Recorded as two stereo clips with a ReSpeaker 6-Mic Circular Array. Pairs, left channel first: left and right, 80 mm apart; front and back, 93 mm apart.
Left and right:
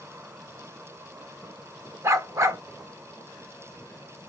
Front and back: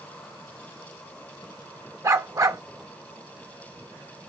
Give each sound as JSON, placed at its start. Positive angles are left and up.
{"t": 2.0, "sound": "a dog barking", "azimuth_deg": -135, "distance_m": 0.8}